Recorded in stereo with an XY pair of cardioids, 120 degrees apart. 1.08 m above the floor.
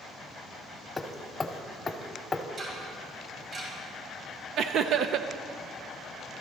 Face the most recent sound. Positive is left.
turn(degrees=-60)